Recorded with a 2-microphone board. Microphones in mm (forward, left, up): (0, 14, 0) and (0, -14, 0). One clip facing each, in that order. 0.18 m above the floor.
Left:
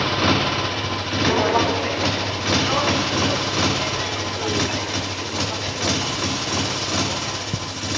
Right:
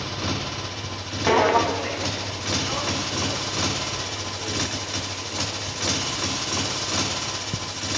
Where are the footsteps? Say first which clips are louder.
Right 1 dB; 25° right (ahead or behind); by 7.9 s 40° left (ahead or behind).